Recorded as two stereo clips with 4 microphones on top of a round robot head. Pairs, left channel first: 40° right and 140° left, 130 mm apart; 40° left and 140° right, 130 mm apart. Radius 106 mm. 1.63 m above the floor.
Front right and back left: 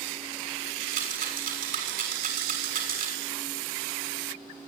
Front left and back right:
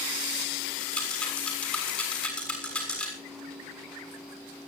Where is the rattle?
125° left, 6.5 m.